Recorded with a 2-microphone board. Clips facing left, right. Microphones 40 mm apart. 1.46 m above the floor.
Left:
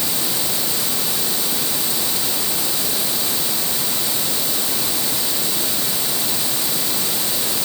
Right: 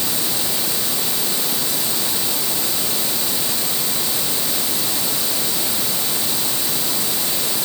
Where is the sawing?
No sawing in this recording.